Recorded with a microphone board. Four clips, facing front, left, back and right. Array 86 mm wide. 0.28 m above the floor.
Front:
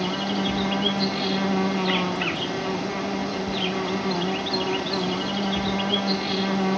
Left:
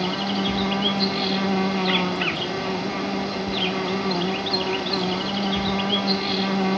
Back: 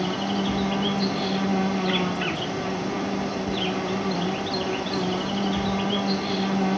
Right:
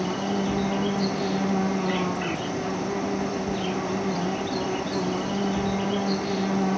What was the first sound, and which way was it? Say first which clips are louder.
An insect: left 1 dB, even; 70° left.